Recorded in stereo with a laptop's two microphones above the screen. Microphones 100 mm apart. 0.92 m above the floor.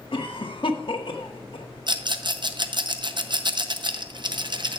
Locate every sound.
0.1 s a cough: 60° left (ahead or behind), 1.4 m
1.9 s a rattle: 50° right (ahead or behind), 0.6 m